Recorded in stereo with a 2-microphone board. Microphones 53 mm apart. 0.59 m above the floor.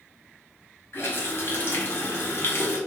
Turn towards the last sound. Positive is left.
turn(degrees=50)  # may be behind; listen again after turning